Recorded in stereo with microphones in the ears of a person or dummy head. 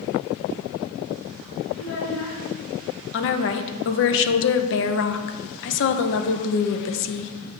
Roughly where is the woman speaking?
Left.